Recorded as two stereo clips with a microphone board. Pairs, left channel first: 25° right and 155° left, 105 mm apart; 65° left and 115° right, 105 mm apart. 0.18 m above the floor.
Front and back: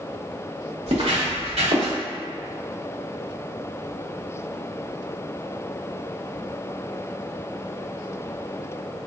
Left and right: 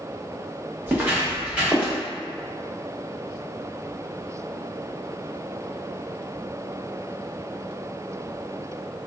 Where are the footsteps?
175° left, 1.4 m; by 1.9 s 170° left, 2.0 m.